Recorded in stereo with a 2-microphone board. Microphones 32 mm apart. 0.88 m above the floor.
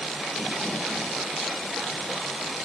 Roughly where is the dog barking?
No dog barking in this recording.